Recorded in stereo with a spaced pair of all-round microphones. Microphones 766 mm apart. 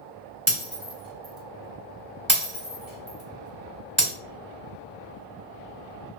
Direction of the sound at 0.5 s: 15° right (ahead or behind).